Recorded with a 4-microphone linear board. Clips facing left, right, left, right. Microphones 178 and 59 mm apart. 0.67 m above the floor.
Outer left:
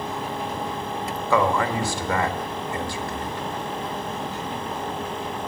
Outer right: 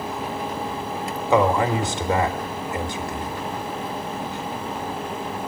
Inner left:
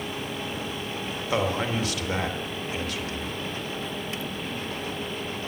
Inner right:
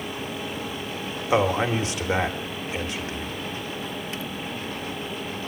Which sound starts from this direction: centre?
A man speaking, at 1.3 s.